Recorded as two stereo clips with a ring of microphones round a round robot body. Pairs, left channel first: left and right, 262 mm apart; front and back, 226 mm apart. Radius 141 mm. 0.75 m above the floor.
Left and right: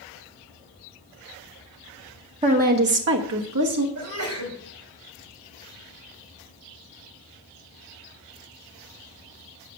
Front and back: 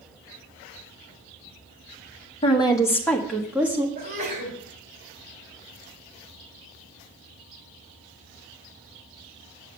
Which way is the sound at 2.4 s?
40° right.